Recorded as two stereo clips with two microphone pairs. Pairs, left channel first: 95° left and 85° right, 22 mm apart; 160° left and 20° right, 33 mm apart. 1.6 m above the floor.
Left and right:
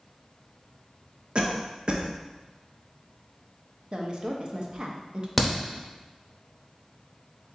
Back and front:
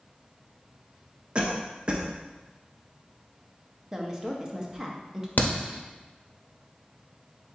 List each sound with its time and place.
1.4 s a cough: 70° right, 0.5 m
3.9 s a woman speaking: 85° right, 0.6 m
5.4 s a crack: 175° right, 0.7 m